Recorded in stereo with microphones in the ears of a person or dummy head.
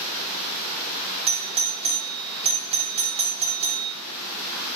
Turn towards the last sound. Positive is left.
turn(degrees=-20)  # may be behind; listen again after turning